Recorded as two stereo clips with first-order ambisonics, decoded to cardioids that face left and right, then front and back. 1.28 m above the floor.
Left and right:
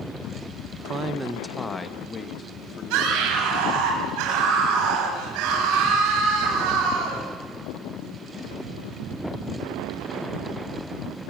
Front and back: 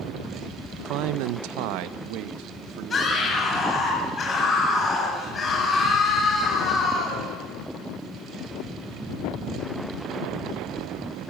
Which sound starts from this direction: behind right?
A man speaking, at 0.8 s.